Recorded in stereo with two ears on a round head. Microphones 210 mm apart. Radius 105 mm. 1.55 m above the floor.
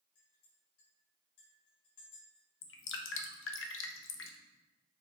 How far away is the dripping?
About 0.9 m.